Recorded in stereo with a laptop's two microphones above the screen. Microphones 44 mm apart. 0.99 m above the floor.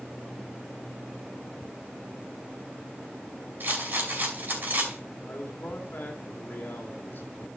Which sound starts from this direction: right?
A rattle, at 3.6 s.